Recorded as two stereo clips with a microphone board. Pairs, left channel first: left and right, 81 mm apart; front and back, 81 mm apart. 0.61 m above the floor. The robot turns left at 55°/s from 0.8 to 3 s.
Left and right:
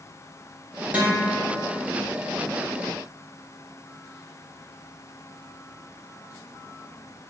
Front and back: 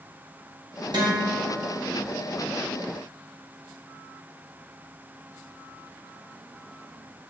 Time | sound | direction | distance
0.9 | a guitar | 160° right | 2.5 m